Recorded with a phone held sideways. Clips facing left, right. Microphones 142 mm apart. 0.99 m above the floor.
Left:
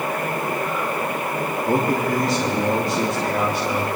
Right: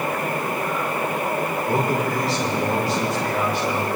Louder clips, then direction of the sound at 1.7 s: Left 3 dB; 45° left (ahead or behind).